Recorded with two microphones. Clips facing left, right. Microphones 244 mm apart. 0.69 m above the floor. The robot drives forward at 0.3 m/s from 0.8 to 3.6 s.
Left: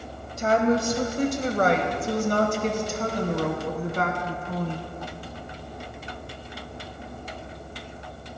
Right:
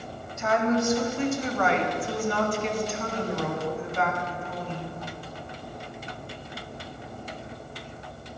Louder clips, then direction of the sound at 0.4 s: Left 2 dB; 35° left (ahead or behind).